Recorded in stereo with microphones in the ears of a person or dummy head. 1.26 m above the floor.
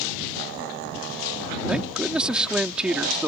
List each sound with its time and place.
1.7 s a man speaking: 5° right (ahead or behind)